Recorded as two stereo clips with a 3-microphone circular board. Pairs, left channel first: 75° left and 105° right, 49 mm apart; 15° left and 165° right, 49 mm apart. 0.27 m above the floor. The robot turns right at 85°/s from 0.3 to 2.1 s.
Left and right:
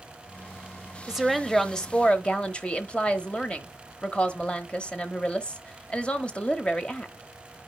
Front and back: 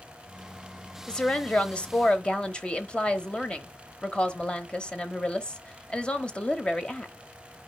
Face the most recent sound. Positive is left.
turn(degrees=45)